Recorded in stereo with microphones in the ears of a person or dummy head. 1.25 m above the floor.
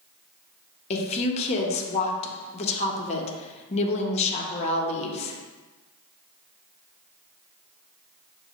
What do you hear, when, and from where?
0.9 s a woman speaking: 40° left (ahead or behind), 0.7 m